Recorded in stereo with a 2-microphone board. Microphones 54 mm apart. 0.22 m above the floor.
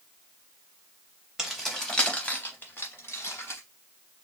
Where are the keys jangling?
5° right (ahead or behind), 0.9 m; by 3.6 s 50° left (ahead or behind), 1.3 m.